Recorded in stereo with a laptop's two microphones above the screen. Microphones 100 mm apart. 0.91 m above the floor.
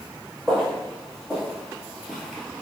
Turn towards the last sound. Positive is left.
turn(degrees=5)  # may be behind; listen again after turning